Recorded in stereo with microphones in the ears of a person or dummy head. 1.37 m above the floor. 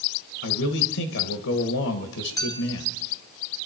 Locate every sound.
0.4 s a man speaking: 75° left (ahead or behind), 1.4 m
2.4 s a clink: 15° left (ahead or behind), 1.3 m